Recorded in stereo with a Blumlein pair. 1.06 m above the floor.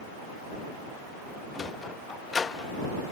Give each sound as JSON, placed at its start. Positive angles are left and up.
{"t": 1.5, "sound": "a sliding door", "azimuth_deg": 15}